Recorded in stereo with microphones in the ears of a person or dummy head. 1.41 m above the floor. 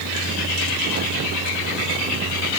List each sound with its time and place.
Only background noise.